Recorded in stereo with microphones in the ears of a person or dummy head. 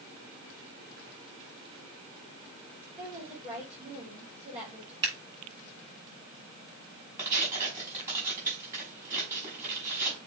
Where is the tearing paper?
15° right (ahead or behind), 5.5 m.